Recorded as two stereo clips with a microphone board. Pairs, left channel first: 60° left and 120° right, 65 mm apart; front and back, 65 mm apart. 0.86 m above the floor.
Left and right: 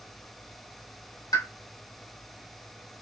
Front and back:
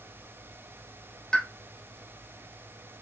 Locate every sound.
1.3 s a pop: 75° left, 3 m